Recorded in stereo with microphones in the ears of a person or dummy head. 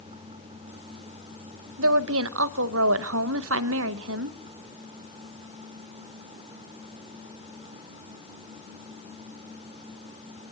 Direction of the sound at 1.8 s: 75° right (ahead or behind).